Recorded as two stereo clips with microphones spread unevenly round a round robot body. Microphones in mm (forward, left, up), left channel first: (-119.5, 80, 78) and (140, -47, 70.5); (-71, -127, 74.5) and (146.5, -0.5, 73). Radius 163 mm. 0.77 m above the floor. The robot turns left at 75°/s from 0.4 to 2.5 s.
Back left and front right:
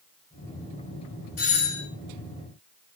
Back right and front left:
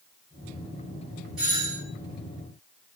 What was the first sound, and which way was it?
A doorbell, 120° left.